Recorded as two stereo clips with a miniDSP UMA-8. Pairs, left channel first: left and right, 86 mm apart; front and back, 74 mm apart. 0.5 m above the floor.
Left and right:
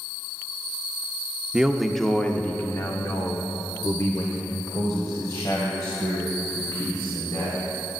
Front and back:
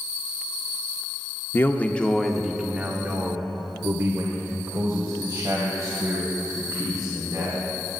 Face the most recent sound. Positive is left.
turn(degrees=140)